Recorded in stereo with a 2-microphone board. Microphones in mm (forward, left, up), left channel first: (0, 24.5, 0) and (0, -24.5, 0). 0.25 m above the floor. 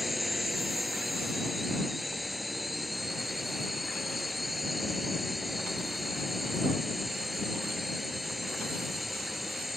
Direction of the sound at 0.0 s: Centre (ahead or behind).